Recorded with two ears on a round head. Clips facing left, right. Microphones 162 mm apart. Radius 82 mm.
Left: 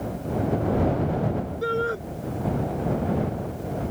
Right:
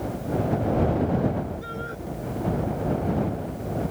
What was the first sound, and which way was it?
A shout, 70° left (ahead or behind).